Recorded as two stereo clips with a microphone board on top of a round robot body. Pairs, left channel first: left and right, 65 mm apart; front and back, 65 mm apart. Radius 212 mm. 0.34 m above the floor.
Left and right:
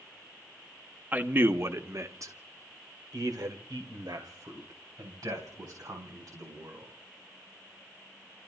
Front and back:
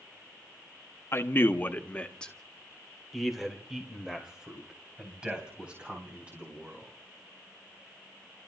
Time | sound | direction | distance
1.1 | a man speaking | 35° right | 1.4 m